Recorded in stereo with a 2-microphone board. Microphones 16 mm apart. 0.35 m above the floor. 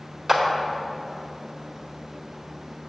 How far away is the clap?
About 1.2 m.